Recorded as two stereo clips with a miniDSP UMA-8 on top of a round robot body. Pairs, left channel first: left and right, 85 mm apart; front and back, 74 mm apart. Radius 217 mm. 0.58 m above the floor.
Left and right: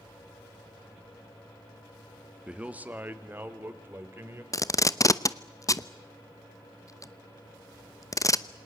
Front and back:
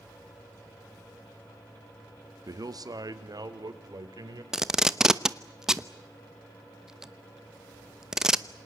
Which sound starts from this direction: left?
Tape being pulled, at 4.5 s.